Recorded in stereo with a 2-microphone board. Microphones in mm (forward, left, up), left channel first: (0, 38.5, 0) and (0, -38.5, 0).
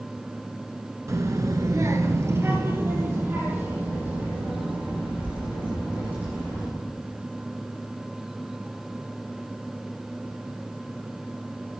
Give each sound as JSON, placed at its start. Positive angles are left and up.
{"t": 1.1, "sound": "a child speaking", "side_deg": -40, "distance_m": 1.1}